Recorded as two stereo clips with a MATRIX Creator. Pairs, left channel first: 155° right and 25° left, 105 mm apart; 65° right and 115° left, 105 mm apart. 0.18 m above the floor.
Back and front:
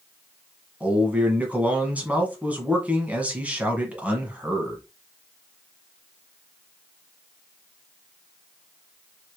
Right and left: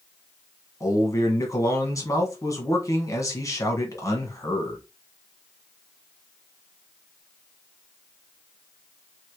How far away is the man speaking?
About 1.2 m.